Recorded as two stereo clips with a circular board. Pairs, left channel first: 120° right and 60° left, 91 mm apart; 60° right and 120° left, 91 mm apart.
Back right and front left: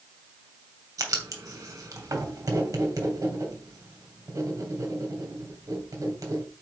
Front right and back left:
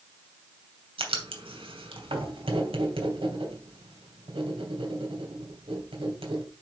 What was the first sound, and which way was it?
Writing, 110° left.